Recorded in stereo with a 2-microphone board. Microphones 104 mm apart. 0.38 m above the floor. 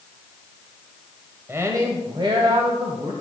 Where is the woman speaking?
25° right (ahead or behind), 1.3 m; by 3.1 s 65° right (ahead or behind), 1.7 m.